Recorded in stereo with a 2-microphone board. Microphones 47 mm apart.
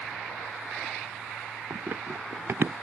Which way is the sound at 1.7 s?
60° right (ahead or behind).